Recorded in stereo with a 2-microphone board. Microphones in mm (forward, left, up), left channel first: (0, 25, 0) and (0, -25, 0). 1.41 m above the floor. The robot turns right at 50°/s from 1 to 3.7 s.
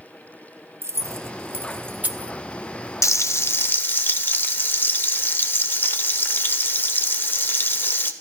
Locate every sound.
0.8 s keys jangling: 60° right (ahead or behind), 0.7 m; by 2.3 s 25° right (ahead or behind), 0.7 m
3.0 s frying: 105° left, 0.9 m; by 8.1 s 140° left, 0.9 m